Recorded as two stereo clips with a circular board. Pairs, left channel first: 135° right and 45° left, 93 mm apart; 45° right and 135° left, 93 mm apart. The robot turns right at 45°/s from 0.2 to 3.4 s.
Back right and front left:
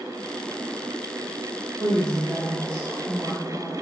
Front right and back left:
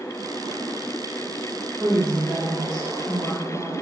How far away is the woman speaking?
About 2 m.